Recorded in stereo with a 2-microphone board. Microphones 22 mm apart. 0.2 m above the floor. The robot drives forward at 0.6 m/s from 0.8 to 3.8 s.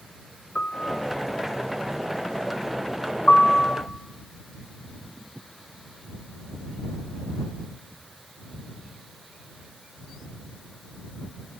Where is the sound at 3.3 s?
40° left (ahead or behind), 2.5 m.